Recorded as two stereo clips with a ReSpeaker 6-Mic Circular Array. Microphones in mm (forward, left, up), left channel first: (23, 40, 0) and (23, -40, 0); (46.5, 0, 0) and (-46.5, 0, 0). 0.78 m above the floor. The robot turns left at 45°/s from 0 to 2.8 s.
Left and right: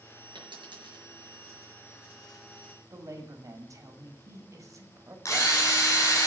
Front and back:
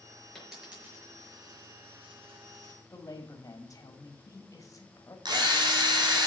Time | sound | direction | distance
0.3 | a dropped coin | 85° right | 5.5 m
2.9 | a woman speaking | 45° right | 1.9 m
5.2 | a drill | 140° left | 4.5 m